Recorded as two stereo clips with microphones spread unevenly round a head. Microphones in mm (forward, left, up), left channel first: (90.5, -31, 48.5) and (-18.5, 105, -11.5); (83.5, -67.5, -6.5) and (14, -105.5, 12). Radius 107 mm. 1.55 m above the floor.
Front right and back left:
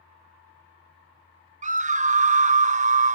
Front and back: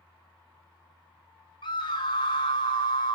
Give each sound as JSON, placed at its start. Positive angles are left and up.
{"t": 0.0, "sound": "a fan", "azimuth_deg": 95, "distance_m": 5.5}
{"t": 1.6, "sound": "a scream", "azimuth_deg": 85, "distance_m": 0.8}